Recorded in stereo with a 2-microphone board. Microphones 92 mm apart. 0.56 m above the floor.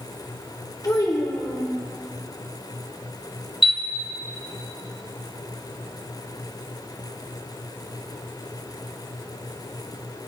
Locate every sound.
0.8 s a child speaking: 40° left (ahead or behind), 1.3 m
3.6 s a chime: 70° left (ahead or behind), 0.8 m